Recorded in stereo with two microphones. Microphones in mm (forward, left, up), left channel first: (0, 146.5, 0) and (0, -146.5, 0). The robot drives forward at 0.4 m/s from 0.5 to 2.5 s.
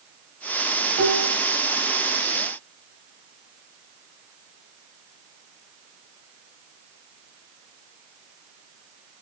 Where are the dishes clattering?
70° right (ahead or behind), 1.8 m; by 1.4 s 75° right (ahead or behind), 1.7 m.